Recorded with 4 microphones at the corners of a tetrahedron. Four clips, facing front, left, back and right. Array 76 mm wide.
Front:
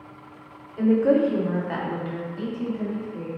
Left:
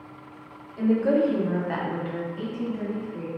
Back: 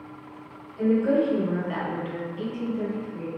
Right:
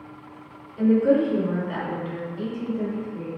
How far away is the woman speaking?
About 1.5 m.